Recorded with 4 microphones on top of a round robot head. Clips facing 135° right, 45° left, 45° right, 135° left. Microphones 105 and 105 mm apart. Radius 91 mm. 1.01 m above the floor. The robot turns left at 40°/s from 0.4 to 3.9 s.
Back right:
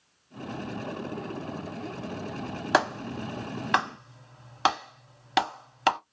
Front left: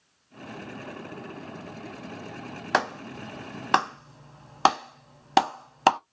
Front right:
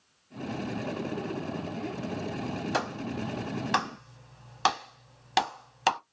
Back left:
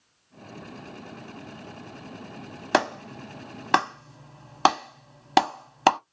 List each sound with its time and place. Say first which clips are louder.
2.7 s a clap: back right 1 dB, back left 11 dB; 145° left, 1.0 m; by 6.0 s 95° left, 1.0 m